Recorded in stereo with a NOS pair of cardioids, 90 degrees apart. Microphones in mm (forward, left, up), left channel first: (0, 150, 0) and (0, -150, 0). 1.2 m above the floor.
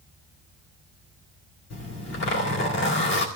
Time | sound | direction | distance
1.7 | a zipper | 65° left | 2.5 m